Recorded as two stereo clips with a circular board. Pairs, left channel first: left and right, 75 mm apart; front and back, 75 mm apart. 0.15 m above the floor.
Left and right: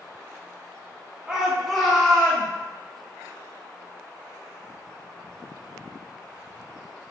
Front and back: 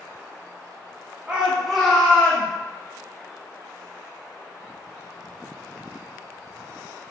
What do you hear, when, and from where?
1.3 s a shout: 145° right, 1.0 m; by 2.5 s 35° left, 1.2 m